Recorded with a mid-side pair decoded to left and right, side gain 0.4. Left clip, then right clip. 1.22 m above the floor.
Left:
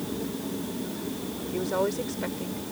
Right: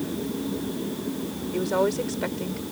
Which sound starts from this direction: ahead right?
A woman speaking, at 1.5 s.